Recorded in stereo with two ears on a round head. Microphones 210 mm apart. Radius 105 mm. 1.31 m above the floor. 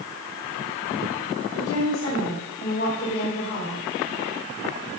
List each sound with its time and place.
1.5 s a woman speaking: 60° left (ahead or behind), 5 m